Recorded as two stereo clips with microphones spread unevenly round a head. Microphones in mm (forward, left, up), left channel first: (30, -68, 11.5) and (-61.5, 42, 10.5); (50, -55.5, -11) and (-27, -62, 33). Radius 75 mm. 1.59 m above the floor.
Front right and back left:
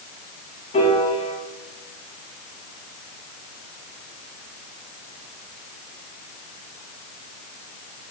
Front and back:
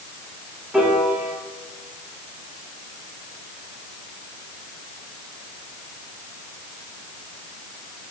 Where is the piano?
95° right, 2 m.